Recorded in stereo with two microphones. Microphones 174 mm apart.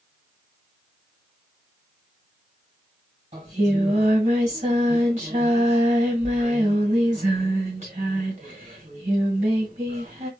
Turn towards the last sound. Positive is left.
turn(degrees=-40)  # may be behind; listen again after turning